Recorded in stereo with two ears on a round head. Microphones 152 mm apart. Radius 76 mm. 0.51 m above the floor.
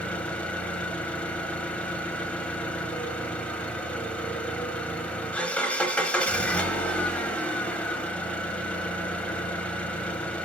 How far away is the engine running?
About 0.8 m.